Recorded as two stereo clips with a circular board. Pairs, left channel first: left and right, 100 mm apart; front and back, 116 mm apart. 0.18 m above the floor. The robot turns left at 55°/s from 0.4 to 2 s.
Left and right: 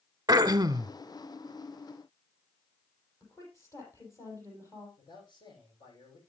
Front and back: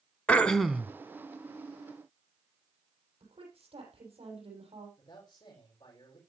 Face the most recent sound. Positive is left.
turn(degrees=50)